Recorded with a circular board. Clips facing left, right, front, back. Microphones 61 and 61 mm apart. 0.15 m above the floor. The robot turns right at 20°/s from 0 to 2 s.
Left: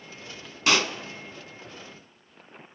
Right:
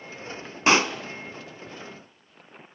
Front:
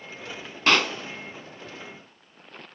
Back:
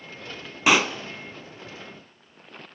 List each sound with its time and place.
0.7 s a pop: 110° right, 0.6 m; by 1.0 s 105° right, 0.6 m